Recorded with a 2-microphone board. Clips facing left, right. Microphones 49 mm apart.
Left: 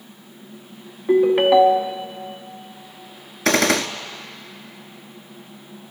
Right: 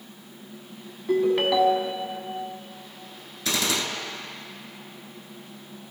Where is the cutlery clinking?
I don't hear cutlery clinking.